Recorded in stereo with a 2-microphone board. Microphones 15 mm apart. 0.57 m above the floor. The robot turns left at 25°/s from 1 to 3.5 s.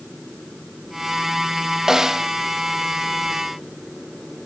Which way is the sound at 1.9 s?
40° right (ahead or behind).